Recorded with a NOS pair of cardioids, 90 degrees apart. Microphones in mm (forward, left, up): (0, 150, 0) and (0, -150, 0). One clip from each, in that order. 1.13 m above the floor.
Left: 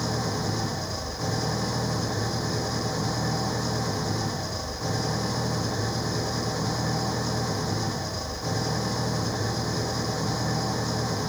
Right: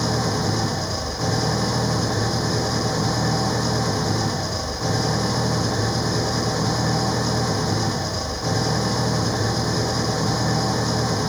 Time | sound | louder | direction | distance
0.0 | an engine running | right 6 dB | 45° right | ?